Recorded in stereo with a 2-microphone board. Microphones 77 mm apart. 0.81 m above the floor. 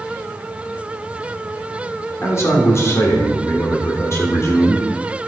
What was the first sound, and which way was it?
A man speaking, 35° left (ahead or behind).